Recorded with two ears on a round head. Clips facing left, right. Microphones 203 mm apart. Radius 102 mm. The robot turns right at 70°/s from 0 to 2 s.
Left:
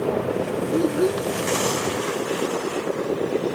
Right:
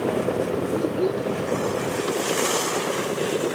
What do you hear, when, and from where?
0.7 s a child speaking: 145° left; by 1.3 s straight behind